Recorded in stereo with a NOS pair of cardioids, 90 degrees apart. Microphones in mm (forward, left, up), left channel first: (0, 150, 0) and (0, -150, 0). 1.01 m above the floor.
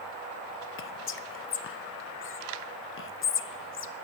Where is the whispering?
40° left, 0.6 m.